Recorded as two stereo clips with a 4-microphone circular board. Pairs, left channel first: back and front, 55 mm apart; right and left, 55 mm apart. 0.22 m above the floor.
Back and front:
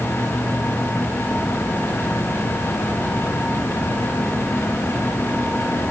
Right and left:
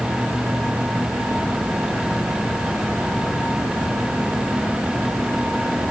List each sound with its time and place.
Only background noise.